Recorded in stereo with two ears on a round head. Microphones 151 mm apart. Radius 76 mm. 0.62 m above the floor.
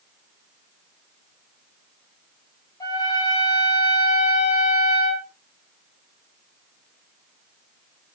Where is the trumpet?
20° left (ahead or behind), 6.5 m.